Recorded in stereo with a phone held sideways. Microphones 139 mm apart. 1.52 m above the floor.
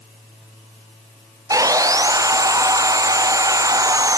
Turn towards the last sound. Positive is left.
turn(degrees=-25)  # may be behind; listen again after turning